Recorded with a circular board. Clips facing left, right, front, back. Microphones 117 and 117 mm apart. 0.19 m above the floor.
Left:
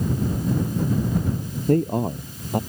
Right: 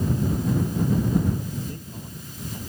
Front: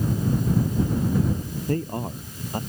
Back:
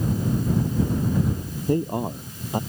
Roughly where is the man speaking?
Left.